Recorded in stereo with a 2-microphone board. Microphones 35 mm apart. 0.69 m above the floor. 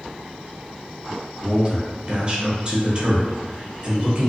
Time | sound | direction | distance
1.4 | a man speaking | 30° right (ahead or behind) | 0.8 m